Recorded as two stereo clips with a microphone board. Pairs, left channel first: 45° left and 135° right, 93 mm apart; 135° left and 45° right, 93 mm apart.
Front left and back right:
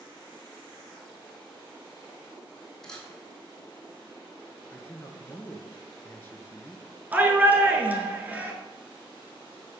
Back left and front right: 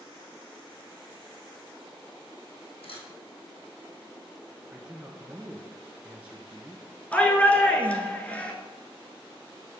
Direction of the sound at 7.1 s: 175° right.